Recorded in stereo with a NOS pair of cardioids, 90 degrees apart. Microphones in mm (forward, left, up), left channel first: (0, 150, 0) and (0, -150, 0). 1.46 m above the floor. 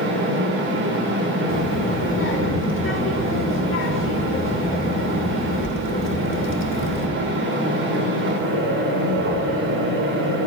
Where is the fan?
50° right, 5 m.